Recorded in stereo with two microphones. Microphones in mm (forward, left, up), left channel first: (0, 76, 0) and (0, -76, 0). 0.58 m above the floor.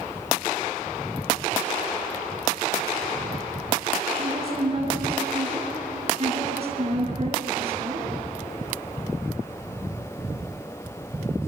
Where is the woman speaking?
40° right (ahead or behind), 8.5 m.